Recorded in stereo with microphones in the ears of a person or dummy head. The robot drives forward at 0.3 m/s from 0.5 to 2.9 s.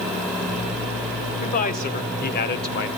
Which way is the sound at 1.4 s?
45° left (ahead or behind).